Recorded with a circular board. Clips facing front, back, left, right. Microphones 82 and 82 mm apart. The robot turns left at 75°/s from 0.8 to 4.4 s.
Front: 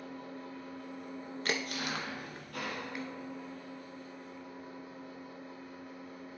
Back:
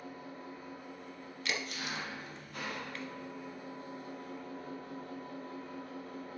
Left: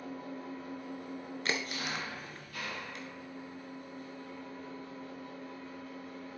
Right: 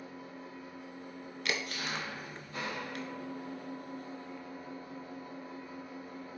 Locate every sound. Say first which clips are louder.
0.0 s an engine running: front 2 dB, left 4 dB; 105° left, 2.0 m; by 6.4 s 165° right, 2.0 m
1.4 s a crack: front 3 dB, even; 40° left, 1.0 m; by 3.0 s 80° right, 1.0 m